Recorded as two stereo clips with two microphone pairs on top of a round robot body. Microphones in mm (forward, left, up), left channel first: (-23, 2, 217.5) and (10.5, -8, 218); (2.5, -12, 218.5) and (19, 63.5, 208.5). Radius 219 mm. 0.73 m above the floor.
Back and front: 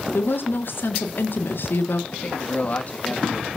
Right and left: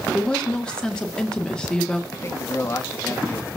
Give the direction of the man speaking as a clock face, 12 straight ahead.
5 o'clock.